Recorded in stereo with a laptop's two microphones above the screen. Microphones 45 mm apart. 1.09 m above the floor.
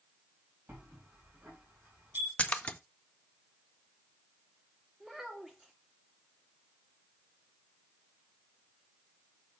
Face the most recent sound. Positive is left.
turn(degrees=-10)  # may be behind; listen again after turning